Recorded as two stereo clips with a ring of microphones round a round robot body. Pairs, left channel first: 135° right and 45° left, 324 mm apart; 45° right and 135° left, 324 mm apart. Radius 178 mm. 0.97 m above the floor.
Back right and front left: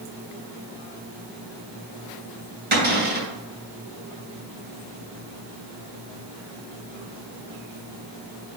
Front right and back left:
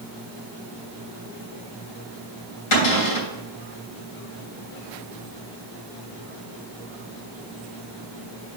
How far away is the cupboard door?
About 3 m.